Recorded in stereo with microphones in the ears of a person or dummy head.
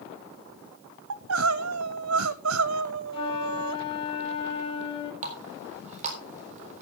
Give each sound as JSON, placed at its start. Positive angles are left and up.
{"t": 1.1, "sound": "crying", "side_deg": -75, "distance_m": 0.8}
{"t": 3.1, "sound": "a flute", "side_deg": 30, "distance_m": 1.0}
{"t": 5.2, "sound": "a running tap", "side_deg": -45, "distance_m": 3.5}